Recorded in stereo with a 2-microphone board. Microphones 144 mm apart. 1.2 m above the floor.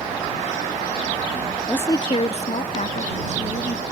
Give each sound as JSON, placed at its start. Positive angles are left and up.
{"t": 1.7, "sound": "a woman speaking", "side_deg": 10}